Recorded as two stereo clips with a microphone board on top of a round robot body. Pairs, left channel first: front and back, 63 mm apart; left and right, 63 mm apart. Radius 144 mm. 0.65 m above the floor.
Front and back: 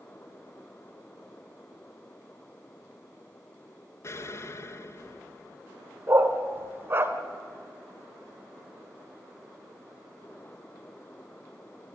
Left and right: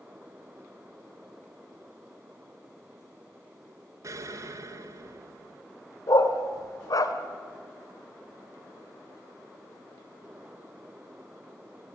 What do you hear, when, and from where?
4.0 s an explosion: 50° right, 1.0 m
6.1 s a dog barking: 125° left, 1.2 m